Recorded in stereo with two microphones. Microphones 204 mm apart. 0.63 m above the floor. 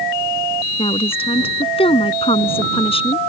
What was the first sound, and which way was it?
A woman speaking, 25° left (ahead or behind).